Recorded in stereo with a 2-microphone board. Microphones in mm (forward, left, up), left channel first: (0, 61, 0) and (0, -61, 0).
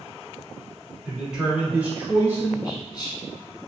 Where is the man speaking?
5° right (ahead or behind), 1.3 m; by 2.5 s 20° right (ahead or behind), 1.1 m.